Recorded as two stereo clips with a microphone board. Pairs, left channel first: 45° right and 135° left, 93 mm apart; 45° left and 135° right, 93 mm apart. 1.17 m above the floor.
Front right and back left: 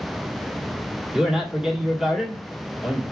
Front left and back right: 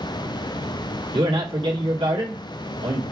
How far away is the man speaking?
About 1.4 m.